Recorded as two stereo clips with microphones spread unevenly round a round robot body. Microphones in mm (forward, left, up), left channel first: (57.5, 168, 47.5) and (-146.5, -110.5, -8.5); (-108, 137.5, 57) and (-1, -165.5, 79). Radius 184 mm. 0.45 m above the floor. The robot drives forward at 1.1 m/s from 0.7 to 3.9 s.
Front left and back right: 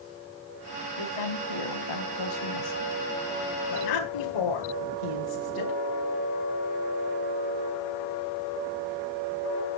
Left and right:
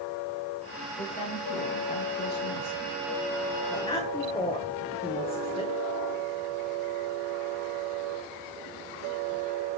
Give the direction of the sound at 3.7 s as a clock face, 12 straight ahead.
11 o'clock.